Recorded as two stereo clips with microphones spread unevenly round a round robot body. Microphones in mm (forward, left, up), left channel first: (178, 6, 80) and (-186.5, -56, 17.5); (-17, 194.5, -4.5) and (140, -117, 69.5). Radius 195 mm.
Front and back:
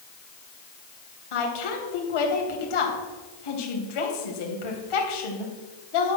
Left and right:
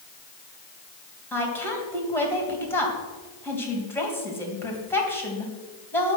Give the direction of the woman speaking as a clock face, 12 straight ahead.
11 o'clock.